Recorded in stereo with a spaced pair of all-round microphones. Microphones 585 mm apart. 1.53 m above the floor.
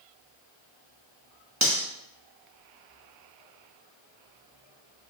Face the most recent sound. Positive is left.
turn(degrees=-30)  # may be behind; listen again after turning